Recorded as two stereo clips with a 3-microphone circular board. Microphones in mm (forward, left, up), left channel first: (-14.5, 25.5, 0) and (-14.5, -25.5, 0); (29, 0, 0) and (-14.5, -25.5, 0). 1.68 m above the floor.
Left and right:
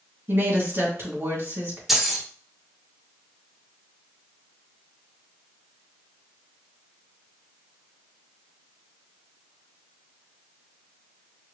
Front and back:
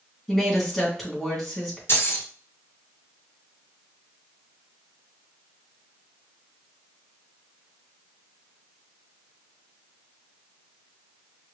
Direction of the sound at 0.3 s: 60° right.